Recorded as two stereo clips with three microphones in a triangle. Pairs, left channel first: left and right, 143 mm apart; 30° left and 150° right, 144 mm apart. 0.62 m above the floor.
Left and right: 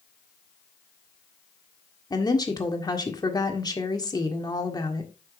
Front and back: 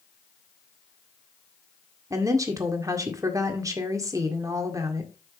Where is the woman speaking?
150° left, 1.7 m.